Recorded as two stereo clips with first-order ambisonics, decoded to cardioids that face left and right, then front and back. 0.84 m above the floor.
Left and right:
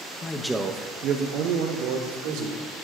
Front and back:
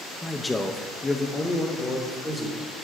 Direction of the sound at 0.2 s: 80° left.